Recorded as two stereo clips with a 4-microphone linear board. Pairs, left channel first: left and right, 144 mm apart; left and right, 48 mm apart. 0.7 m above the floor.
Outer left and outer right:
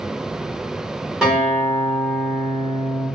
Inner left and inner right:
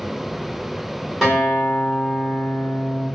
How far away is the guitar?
About 1.4 m.